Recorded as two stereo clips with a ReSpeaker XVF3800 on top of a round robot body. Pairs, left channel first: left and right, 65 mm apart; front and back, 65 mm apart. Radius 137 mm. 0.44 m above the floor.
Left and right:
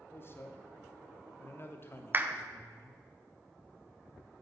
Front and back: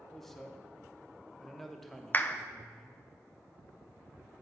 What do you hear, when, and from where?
0.1 s a man speaking: 85° left, 1.1 m
2.1 s a clap: 45° right, 0.7 m